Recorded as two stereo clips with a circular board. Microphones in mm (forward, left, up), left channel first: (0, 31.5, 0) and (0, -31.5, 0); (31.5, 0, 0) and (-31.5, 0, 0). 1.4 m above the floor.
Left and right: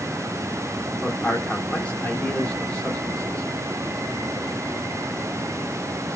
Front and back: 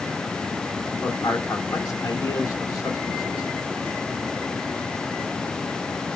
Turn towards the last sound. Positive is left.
turn(degrees=20)